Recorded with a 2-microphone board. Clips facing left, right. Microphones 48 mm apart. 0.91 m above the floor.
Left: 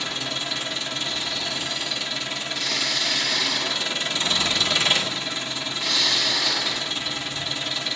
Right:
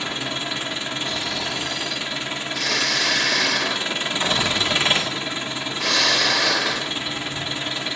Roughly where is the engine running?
Right.